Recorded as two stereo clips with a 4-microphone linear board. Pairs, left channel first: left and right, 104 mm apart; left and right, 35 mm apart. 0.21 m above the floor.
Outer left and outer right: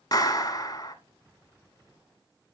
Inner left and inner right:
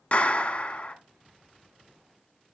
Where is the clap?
35° left (ahead or behind), 1.3 m.